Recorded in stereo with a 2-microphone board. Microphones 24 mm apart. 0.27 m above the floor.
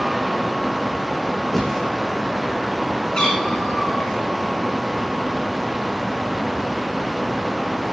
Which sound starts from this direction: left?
A cat meowing, at 3.1 s.